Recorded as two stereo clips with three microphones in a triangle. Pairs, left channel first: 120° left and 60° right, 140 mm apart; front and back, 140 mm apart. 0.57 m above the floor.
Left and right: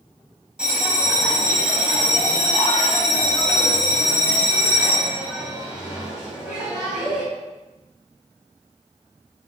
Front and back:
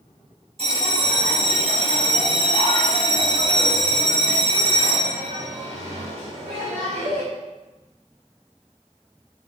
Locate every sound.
0.6 s a bell: 145° right, 4 m